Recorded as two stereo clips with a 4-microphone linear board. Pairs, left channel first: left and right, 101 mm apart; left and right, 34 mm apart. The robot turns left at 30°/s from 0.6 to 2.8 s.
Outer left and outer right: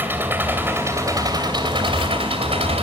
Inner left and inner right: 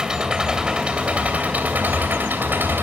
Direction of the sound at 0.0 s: 20° right.